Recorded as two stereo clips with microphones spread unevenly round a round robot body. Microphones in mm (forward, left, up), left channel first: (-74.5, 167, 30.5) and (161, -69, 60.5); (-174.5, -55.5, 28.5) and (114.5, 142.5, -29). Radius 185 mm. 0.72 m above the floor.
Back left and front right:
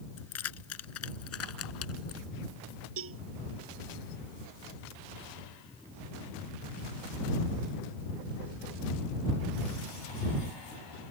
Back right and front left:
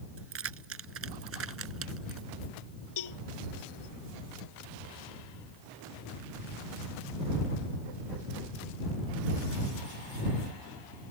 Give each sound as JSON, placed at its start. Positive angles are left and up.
{"t": 0.2, "sound": "keys jangling", "azimuth_deg": 90}
{"t": 3.0, "sound": "a cowbell", "azimuth_deg": -105}